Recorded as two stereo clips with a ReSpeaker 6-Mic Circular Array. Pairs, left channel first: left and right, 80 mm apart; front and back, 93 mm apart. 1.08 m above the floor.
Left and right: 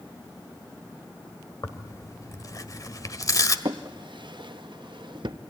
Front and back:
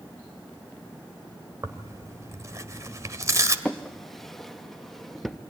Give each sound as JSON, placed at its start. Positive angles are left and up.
{"t": 1.6, "sound": "tearing paper", "azimuth_deg": 125, "distance_m": 1.5}
{"t": 3.6, "sound": "a drawer", "azimuth_deg": -90, "distance_m": 0.7}